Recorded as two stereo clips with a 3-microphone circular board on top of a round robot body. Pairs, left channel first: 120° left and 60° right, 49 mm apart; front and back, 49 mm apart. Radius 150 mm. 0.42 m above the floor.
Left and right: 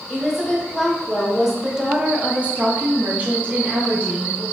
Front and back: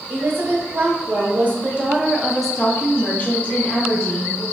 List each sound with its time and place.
0.1 s a woman speaking: 155° right, 1.4 m; by 4.4 s 10° right, 1.3 m